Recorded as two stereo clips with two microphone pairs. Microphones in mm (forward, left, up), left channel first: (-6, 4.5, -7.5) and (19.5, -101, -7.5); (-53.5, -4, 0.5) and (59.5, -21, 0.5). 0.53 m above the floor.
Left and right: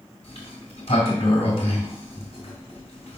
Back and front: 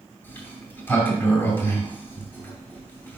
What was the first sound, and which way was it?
A sliding door, 100° left.